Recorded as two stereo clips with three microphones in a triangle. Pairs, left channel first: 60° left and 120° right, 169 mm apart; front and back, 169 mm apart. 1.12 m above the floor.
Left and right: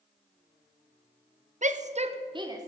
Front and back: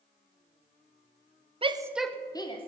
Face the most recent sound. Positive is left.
turn(degrees=-55)